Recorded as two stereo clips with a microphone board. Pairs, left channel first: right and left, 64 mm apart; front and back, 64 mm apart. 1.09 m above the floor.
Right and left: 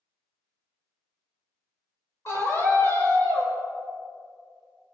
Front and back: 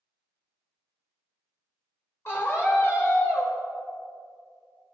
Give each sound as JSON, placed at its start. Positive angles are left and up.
{"t": 2.2, "sound": "a scream", "azimuth_deg": -50, "distance_m": 5.0}